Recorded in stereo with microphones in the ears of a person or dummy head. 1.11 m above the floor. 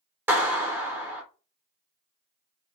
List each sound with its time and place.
0.3 s a clap: 15° right (ahead or behind), 0.5 m